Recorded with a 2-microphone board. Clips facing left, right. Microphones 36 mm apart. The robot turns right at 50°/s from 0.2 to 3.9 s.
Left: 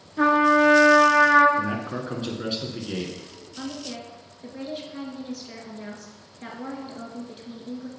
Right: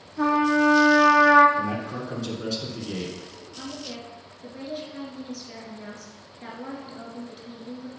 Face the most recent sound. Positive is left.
turn(degrees=10)  # may be behind; listen again after turning